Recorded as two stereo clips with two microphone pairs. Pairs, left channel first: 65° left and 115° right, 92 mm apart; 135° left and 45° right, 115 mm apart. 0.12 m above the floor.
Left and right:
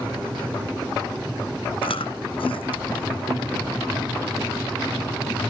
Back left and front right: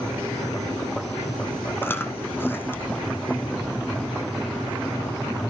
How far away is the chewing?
About 1.1 m.